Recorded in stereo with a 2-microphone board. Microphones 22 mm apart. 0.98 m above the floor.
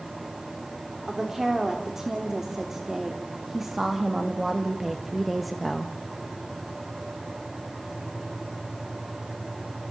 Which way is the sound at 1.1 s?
25° right (ahead or behind).